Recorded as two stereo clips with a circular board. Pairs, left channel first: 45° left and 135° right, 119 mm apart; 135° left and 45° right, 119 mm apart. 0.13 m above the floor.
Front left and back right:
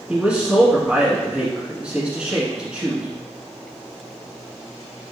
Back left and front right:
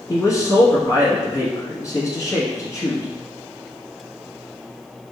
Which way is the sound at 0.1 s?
155° left.